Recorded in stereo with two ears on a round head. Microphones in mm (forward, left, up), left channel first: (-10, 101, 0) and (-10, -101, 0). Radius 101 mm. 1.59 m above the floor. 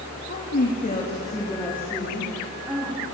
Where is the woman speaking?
55° left (ahead or behind), 2.5 m; by 3.0 s 10° right (ahead or behind), 4.5 m.